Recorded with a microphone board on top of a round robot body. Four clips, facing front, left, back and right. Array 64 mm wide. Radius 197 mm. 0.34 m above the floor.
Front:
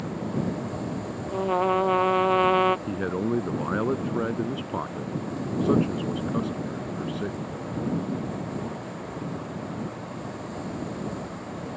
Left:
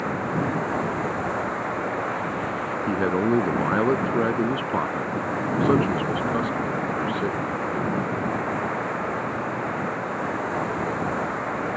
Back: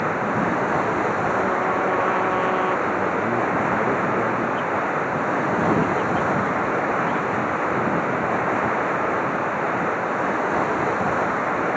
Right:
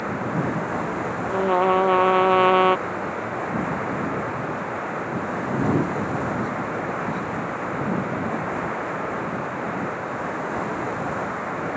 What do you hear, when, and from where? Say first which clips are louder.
0.0 s running water: even, back 8 dB; straight behind
1.3 s a trumpet: right 8 dB, back 3 dB; 80° right
2.9 s a man speaking: left 6 dB, back 6 dB; 85° left